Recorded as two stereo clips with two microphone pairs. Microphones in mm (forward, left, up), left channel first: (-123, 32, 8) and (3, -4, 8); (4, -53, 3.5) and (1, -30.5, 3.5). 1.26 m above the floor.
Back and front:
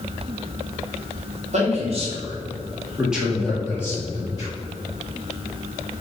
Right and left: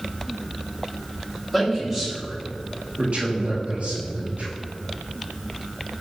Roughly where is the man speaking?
Ahead.